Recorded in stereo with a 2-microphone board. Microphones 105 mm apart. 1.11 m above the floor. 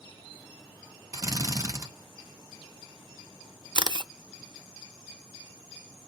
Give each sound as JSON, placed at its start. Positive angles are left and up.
{"t": 1.1, "sound": "a drill", "side_deg": -35, "distance_m": 0.9}
{"t": 3.8, "sound": "a camera shutter", "side_deg": -50, "distance_m": 0.5}